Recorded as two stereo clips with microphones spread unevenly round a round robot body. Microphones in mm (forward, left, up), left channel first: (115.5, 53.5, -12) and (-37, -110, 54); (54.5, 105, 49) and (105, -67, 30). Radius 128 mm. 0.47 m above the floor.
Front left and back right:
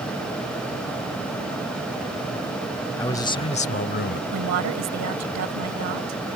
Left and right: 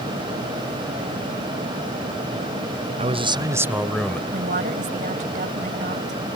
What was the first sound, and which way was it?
A man speaking, 25° right.